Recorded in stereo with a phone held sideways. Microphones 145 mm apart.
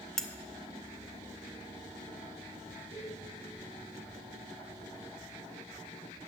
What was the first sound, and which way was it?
Cutlery clinking, centre (ahead or behind).